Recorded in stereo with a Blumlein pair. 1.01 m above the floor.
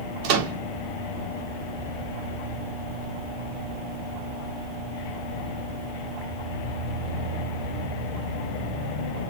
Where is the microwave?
45° right, 1.5 m.